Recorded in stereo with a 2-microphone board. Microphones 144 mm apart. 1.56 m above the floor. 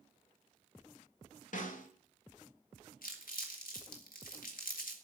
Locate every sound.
1.5 s a snare drum: 65° left (ahead or behind), 2.5 m
3.0 s crumpling: 80° left, 3.5 m